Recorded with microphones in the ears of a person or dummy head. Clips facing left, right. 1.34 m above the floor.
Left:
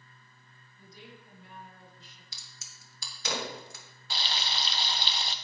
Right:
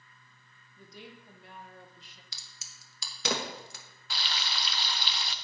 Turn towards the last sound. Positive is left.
turn(degrees=30)  # may be behind; listen again after turning